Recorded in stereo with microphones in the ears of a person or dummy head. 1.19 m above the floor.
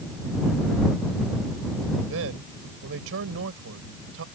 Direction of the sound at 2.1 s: 75° right (ahead or behind).